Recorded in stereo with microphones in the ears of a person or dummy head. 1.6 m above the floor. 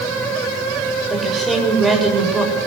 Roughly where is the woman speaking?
Centre.